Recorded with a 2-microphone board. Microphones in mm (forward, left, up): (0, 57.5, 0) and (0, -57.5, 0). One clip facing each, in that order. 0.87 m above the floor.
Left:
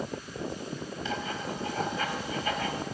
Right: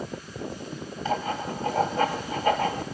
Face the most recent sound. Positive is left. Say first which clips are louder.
# right 7 dB
turn(degrees=-50)  # may be behind; listen again after turning